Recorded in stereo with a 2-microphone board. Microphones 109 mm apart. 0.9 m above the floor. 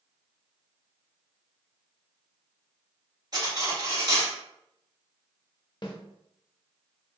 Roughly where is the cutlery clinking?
Right.